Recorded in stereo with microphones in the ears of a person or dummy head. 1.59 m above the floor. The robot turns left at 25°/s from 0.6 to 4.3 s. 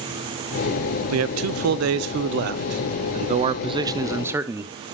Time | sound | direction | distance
1.1 | a man speaking | 90° right | 0.7 m